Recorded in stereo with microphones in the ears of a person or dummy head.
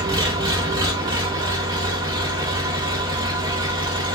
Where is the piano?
No piano in this recording.